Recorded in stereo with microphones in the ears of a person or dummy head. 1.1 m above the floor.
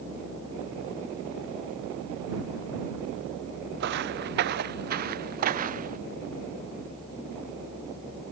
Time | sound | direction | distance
3.8 | footsteps | 55° right (ahead or behind) | ?